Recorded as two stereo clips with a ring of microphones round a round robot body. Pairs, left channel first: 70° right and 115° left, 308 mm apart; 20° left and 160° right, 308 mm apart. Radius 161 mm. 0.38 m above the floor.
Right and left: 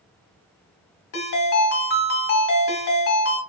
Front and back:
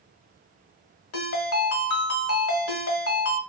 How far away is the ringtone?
About 1.0 m.